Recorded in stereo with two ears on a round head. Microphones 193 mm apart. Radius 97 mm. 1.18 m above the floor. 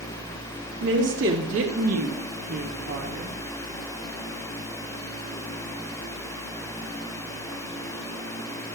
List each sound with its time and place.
0.8 s a woman speaking: 55° right (ahead or behind), 3.5 m; by 3.4 s 45° right (ahead or behind), 2.5 m